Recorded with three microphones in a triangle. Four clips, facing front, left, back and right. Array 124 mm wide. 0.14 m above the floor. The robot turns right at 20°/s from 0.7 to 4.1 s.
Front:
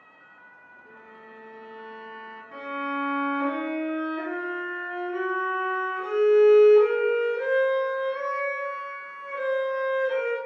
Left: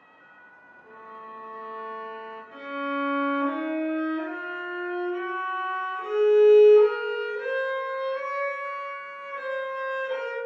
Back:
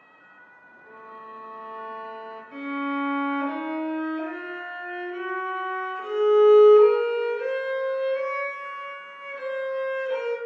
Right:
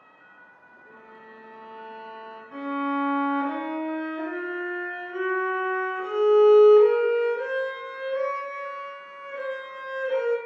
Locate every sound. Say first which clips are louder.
0.8 s a violin: left 6 dB, back 7 dB; 175° left, 0.9 m; by 2.4 s 155° right, 0.9 m
2.5 s a violin: right 4 dB, back 2 dB; 45° right, 1.6 m; by 10.4 s 10° right, 1.6 m